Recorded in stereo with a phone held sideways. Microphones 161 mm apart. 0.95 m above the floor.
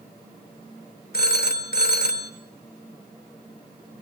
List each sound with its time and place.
1.1 s a phone ringing: 75° left (ahead or behind), 2 m